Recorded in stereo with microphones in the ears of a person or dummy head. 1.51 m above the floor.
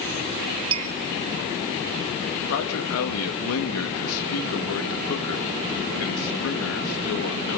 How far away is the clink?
About 0.7 m.